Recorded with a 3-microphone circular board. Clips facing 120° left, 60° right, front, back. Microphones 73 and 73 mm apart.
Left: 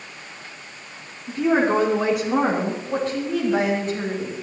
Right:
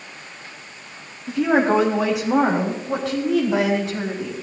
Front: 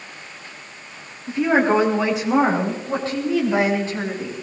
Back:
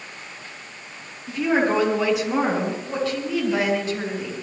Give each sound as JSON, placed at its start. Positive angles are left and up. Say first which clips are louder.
{"t": 1.3, "sound": "a woman speaking", "louder": "right 1 dB, front 3 dB", "azimuth_deg": -60, "distance_m": 6.0}